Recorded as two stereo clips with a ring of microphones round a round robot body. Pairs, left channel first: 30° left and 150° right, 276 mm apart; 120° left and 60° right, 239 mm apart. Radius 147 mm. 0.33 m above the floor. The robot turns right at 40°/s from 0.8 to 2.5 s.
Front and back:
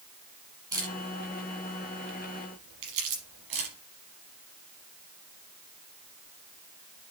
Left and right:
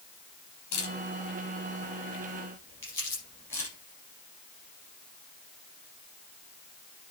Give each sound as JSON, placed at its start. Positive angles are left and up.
{"t": 0.7, "sound": "a camera shutter", "azimuth_deg": 135, "distance_m": 5.0}
{"t": 2.8, "sound": "crumpling", "azimuth_deg": -160, "distance_m": 5.5}